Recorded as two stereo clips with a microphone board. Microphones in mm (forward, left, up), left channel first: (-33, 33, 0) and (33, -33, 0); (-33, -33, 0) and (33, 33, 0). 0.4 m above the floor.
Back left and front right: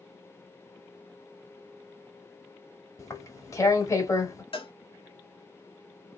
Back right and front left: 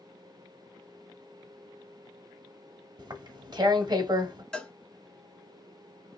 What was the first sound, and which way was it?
Tearing paper, 85° left.